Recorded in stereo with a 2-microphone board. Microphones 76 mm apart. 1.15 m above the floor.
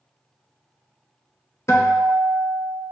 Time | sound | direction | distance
1.7 | a guitar | 45° left (ahead or behind) | 0.5 m